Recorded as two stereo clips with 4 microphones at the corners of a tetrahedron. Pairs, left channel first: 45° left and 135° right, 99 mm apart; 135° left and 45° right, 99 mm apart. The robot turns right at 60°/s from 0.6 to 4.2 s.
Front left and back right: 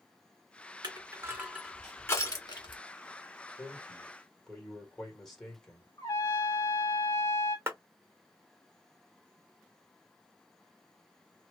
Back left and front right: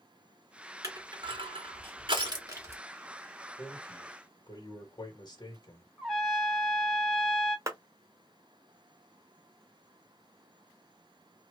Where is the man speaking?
95° left, 1.9 m; by 5.9 s 130° left, 1.9 m.